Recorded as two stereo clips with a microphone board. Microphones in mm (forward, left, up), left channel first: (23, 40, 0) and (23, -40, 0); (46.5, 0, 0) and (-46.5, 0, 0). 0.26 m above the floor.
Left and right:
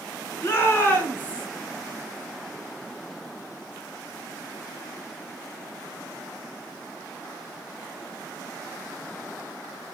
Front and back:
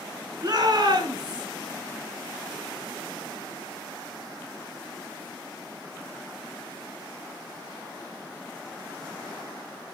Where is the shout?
140° left, 3 m; by 1.5 s 165° left, 2.5 m.